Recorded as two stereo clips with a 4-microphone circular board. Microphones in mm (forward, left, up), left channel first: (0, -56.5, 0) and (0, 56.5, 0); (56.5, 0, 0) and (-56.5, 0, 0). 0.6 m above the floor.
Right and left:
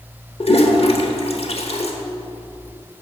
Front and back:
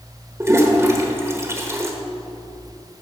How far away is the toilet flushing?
About 1.0 m.